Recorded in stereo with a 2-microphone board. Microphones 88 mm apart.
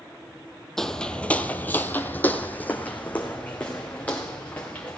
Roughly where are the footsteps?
Centre.